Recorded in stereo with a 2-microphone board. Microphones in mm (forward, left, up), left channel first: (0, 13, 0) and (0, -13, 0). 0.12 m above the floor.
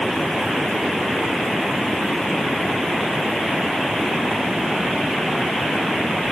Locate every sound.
Only background noise.